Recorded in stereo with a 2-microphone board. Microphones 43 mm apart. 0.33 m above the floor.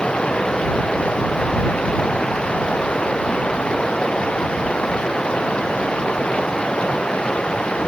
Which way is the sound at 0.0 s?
25° left (ahead or behind).